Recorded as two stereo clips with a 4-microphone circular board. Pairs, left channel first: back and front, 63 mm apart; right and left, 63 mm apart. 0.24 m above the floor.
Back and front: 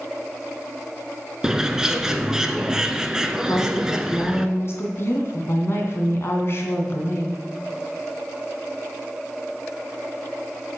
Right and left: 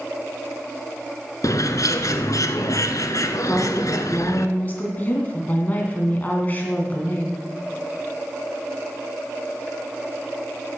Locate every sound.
1.4 s a bird: 80° right, 0.8 m
3.5 s a woman speaking: 145° right, 2.5 m